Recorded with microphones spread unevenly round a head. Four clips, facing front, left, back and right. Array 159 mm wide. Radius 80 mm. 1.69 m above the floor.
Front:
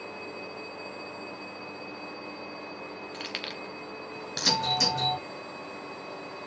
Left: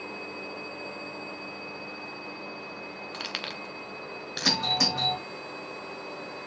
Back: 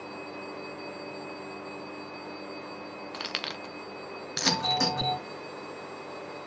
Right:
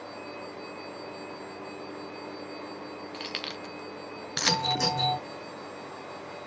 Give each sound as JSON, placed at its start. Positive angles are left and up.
{"t": 3.1, "sound": "keys jangling", "azimuth_deg": 140, "distance_m": 0.6}
{"t": 4.5, "sound": "a doorbell", "azimuth_deg": 130, "distance_m": 5.5}